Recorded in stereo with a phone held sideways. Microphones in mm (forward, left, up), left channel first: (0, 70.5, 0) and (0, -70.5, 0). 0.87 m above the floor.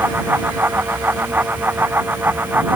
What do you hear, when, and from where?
0.0 s a fan: 15° right (ahead or behind)